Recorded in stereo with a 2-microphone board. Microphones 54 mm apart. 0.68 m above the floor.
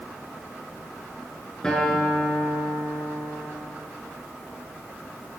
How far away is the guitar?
About 8 m.